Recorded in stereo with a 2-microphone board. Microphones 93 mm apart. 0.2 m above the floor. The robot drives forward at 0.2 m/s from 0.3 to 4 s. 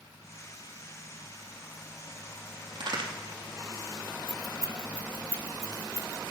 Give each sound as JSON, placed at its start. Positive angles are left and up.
{"t": 2.8, "sound": "a crack", "side_deg": -65, "distance_m": 2.5}
{"t": 4.3, "sound": "keys jangling", "side_deg": 40, "distance_m": 1.1}